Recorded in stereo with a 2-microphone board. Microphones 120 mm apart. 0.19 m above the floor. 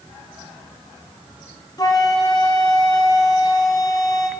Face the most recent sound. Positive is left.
turn(degrees=30)  # may be behind; listen again after turning